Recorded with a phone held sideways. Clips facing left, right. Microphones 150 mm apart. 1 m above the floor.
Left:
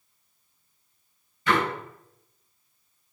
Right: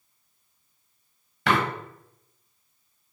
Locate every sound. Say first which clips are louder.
1.5 s a door slam: right 1 dB; 90° right, 3.5 m